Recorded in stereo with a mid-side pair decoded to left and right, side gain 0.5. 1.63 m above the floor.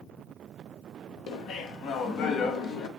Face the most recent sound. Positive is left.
turn(degrees=65)